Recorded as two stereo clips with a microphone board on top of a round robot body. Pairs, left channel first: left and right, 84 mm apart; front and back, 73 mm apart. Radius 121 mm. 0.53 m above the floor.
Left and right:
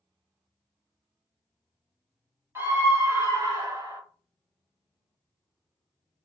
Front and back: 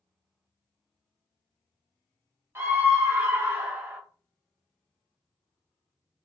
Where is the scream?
140° right, 1.5 m; by 4.0 s 120° right, 2.0 m.